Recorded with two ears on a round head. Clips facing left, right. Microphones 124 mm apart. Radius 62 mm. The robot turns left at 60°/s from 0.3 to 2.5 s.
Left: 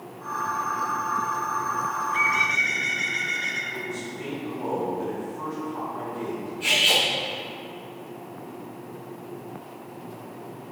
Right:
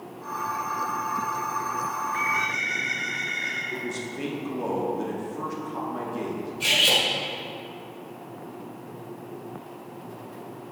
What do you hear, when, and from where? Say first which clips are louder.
2.0 s a bird: left 2 dB; 80° left, 0.7 m; by 3.6 s 50° left, 0.7 m
3.7 s a man speaking: right 2 dB; 75° right (ahead or behind), 1.3 m
6.6 s cutlery clinking: even; 80° right, 1.7 m